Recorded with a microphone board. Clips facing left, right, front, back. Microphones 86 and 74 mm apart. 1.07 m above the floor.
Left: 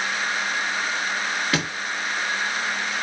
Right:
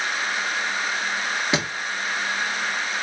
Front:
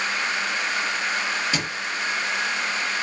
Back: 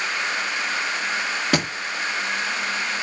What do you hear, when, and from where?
1.5 s a thud: 155° right, 0.9 m